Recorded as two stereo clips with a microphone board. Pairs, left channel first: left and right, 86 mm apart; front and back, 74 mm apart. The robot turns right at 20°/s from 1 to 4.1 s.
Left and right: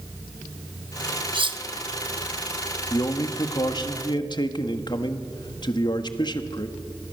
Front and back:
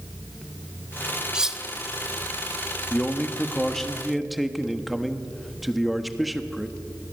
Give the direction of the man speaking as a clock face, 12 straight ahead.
10 o'clock.